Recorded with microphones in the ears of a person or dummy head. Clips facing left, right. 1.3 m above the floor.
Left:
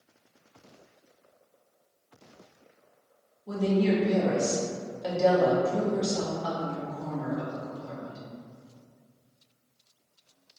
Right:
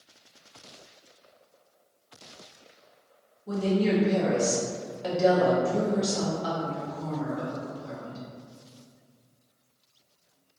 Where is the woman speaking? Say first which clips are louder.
Even; centre (ahead or behind), 0.6 m.